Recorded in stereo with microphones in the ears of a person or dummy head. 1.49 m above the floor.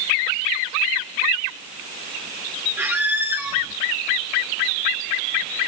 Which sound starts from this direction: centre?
A squeak, at 2.8 s.